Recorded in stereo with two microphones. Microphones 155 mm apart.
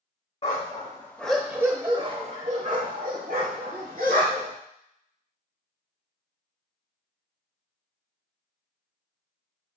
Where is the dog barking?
40° left (ahead or behind), 0.7 m; by 4.5 s 75° right (ahead or behind), 1.7 m.